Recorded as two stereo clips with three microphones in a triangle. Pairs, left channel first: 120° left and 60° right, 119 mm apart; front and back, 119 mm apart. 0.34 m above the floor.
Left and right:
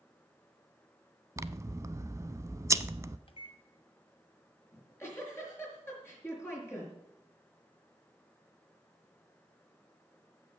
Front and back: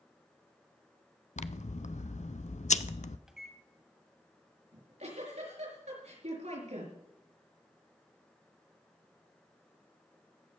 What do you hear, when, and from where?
1.4 s scissors: 5° left, 0.5 m
3.3 s a microwave: 95° left, 1.9 m
4.7 s a giggle: 170° right, 4.5 m